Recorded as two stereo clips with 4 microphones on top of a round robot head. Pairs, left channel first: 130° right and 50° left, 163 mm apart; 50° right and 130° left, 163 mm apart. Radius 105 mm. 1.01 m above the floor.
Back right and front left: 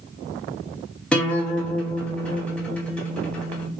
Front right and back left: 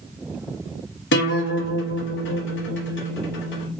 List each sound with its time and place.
1.1 s a guitar: 45° right, 1.0 m